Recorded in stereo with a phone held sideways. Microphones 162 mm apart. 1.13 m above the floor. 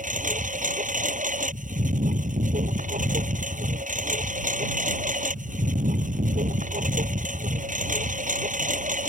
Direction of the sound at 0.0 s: 55° right (ahead or behind).